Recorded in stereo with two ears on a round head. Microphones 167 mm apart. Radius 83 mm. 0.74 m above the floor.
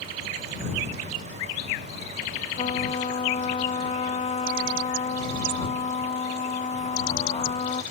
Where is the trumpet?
30° left (ahead or behind).